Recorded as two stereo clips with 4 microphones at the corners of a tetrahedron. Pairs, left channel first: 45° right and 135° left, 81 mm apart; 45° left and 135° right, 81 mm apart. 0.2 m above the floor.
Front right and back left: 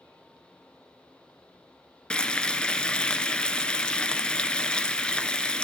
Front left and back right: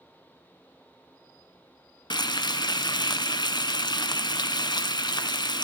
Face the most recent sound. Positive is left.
turn(degrees=30)